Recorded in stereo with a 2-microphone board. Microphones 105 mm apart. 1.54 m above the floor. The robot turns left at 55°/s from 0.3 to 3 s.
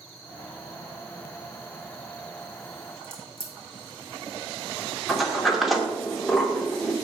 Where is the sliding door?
Centre (ahead or behind), 1.8 m.